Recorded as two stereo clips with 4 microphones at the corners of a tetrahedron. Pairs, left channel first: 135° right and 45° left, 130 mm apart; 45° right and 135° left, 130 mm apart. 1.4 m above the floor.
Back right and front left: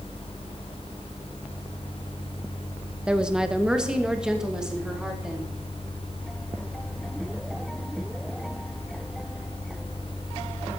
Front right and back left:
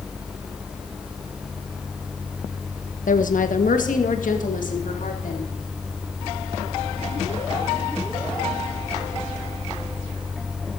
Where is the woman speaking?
35° right, 0.9 m; by 5.5 s 40° right, 3 m.